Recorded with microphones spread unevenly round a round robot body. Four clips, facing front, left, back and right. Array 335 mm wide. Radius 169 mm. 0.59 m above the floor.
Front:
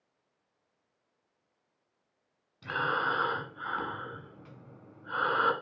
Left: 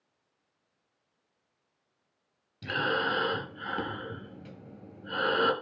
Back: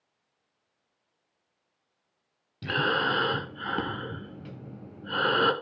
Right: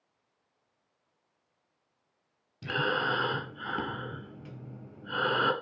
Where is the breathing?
170° right, 1.8 m.